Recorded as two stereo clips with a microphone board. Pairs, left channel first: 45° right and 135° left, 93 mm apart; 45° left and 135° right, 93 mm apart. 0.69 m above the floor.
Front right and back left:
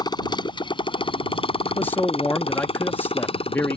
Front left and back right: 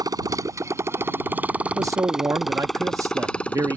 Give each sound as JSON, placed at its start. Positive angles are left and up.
{"t": 0.0, "sound": "a motorcycle", "azimuth_deg": -85}
{"t": 1.6, "sound": "a man speaking", "azimuth_deg": -105}